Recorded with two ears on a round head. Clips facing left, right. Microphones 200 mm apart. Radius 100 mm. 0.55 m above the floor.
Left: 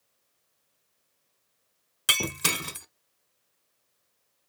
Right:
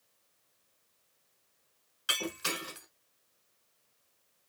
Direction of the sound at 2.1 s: 65° left (ahead or behind).